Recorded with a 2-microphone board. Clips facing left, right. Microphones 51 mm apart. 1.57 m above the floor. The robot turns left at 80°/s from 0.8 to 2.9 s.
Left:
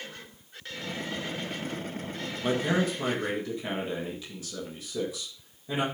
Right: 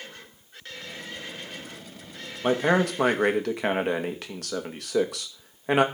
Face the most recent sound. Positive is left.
turn(degrees=-65)